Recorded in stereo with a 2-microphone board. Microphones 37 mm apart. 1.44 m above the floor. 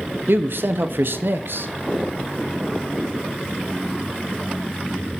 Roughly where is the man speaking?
Right.